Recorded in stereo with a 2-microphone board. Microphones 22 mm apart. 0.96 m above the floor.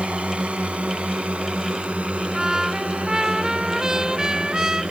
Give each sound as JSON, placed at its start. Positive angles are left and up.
{"t": 0.0, "sound": "a drone", "side_deg": -70}
{"t": 2.3, "sound": "a trumpet", "side_deg": -25}